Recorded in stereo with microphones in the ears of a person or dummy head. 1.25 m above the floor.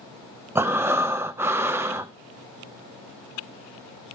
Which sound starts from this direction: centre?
Breathing, at 0.6 s.